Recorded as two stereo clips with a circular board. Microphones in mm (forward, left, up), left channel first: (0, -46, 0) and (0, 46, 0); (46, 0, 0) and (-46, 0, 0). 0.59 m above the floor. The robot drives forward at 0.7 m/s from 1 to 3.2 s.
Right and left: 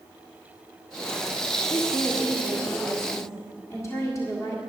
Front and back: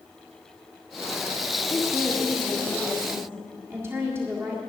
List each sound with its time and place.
1.7 s a woman speaking: 75° right, 1.5 m; by 4.6 s 130° right, 1.7 m